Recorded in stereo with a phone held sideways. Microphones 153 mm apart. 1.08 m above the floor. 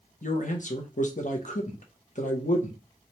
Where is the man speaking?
55° left (ahead or behind), 1.0 m.